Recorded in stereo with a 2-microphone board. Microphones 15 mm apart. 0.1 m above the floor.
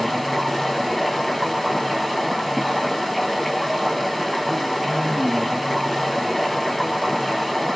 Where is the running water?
Centre (ahead or behind), 2 m.